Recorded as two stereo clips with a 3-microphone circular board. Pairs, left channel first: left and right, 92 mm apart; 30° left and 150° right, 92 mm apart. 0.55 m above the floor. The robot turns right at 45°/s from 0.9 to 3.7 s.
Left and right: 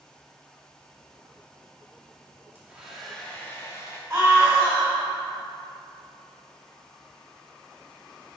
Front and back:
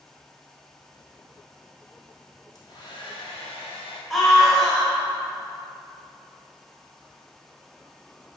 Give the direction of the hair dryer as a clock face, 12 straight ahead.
1 o'clock.